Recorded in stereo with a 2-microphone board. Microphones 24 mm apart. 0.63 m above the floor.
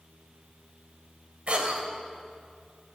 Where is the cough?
45° right (ahead or behind), 2.5 m.